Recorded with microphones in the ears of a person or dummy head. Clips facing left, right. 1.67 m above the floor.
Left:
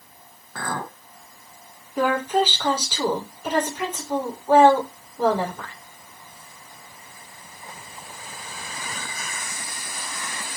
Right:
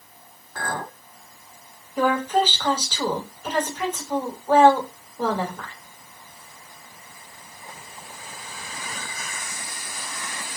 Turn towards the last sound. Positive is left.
turn(degrees=15)  # may be behind; listen again after turning